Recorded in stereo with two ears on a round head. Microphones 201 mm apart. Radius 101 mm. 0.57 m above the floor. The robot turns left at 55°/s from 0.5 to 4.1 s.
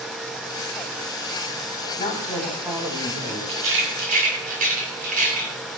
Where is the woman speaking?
30° left, 4 m; by 3.4 s 45° right, 4 m.